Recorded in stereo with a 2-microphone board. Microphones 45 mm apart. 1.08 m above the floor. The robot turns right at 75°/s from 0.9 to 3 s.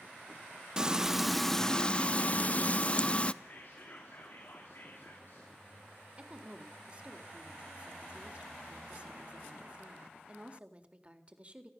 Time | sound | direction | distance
0.8 | frying | 35° right | 0.5 m
3.4 | whispering | 60° left (ahead or behind) | 3 m
6.2 | a woman speaking | 30° right (ahead or behind) | 1.8 m